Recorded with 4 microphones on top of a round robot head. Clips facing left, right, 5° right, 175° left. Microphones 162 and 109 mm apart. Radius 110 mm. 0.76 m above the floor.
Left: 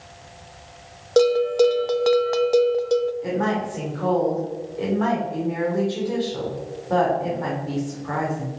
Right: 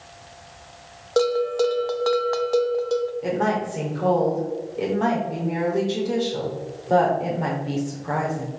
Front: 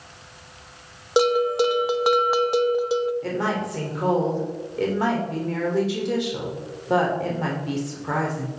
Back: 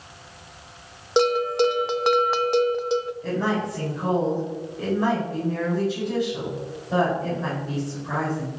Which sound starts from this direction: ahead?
A woman speaking, at 3.2 s.